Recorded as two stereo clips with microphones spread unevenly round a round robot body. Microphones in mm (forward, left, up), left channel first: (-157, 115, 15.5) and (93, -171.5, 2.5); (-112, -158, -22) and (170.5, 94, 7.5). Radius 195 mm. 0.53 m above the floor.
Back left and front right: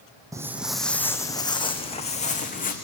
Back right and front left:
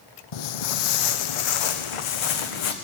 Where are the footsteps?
130° right, 1.5 m; by 2.7 s 160° right, 2.5 m.